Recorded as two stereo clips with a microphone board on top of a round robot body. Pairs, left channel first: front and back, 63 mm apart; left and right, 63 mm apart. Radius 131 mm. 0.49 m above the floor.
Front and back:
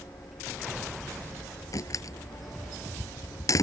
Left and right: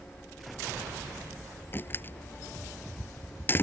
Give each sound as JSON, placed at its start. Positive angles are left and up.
{"t": 1.7, "sound": "a door slam", "azimuth_deg": 35}